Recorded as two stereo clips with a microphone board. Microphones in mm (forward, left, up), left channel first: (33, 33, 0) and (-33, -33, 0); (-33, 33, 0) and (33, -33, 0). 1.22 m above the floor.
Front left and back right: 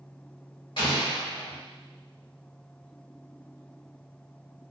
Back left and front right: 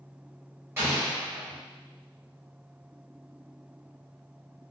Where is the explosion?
15° left, 1.8 m.